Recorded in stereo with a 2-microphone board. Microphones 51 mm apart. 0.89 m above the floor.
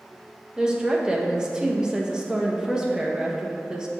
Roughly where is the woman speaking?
Centre.